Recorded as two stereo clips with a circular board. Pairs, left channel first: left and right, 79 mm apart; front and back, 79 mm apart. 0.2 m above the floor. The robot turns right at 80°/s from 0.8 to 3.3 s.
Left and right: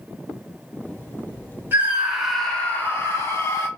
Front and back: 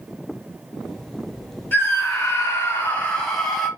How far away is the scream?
About 1.6 m.